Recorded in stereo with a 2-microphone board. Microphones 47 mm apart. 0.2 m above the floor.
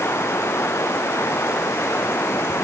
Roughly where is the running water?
Left.